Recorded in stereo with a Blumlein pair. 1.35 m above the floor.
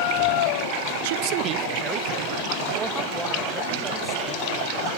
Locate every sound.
1.0 s a man speaking: 55° right, 0.6 m; by 4.9 s 10° right, 3.5 m